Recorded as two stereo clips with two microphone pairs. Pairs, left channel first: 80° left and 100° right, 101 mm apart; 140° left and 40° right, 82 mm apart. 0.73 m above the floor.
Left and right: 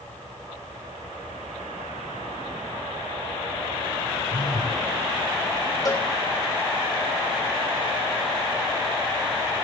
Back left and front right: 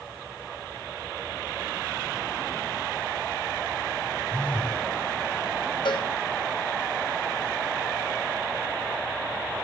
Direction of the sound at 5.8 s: 130° left.